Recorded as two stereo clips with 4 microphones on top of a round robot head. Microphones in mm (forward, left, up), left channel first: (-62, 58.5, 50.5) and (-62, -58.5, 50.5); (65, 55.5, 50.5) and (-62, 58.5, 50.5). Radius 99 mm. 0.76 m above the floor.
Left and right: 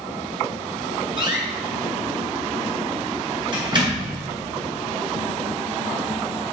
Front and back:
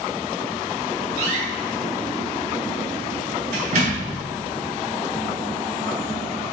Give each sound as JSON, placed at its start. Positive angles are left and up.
{"t": 1.2, "sound": "a door slam", "azimuth_deg": -140, "distance_m": 7.0}